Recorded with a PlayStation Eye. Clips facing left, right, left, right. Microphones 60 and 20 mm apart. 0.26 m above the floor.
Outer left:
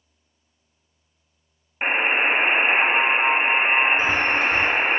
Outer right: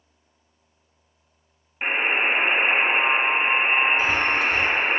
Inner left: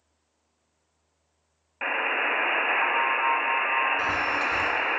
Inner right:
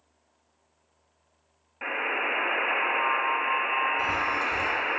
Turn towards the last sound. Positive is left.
turn(degrees=35)  # may be behind; listen again after turning